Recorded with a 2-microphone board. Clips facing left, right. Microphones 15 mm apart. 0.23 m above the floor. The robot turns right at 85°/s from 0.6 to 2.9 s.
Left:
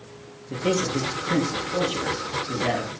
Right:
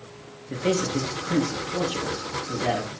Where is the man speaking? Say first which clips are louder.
Even; 35° right, 3.5 m; by 2.9 s 160° left, 3.5 m.